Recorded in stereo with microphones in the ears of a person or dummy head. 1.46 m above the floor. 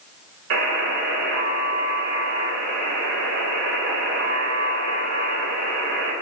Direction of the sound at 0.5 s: 70° right (ahead or behind).